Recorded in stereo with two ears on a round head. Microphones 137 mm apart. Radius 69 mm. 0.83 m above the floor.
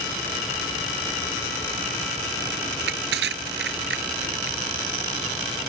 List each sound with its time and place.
2.7 s crushing: 80° right